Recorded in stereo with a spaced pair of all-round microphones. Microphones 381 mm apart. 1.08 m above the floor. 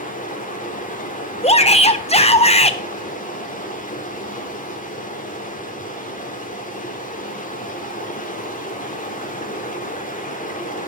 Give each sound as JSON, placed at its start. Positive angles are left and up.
{"t": 0.0, "sound": "running water", "side_deg": 20, "distance_m": 1.8}
{"t": 1.4, "sound": "a shout", "side_deg": 15, "distance_m": 1.1}